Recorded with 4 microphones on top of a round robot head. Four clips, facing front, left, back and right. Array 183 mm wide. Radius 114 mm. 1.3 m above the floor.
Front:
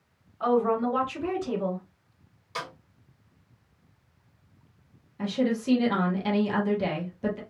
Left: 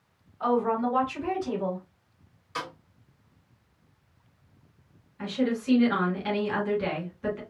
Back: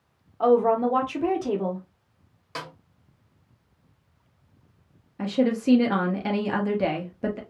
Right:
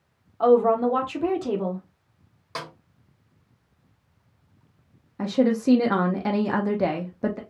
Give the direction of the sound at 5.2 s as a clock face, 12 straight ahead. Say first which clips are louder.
Right 6 dB, back 3 dB; 4 o'clock.